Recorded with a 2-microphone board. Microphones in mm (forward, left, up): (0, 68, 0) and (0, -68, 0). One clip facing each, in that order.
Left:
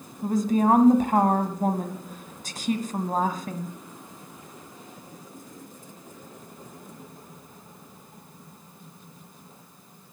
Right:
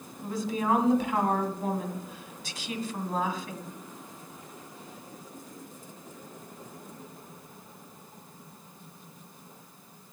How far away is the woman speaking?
About 1.6 m.